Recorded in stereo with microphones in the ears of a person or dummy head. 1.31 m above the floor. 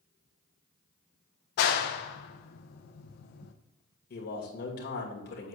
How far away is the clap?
About 0.7 m.